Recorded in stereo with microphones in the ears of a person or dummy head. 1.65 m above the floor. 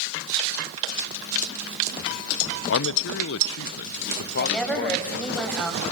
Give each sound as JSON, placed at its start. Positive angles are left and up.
{"t": 2.7, "sound": "a man speaking", "side_deg": 65, "distance_m": 0.9}
{"t": 4.4, "sound": "a woman speaking", "side_deg": 0, "distance_m": 7.5}